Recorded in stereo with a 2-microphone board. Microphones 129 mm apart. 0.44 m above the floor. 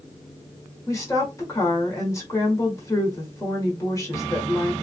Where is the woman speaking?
25° left (ahead or behind), 1.5 m.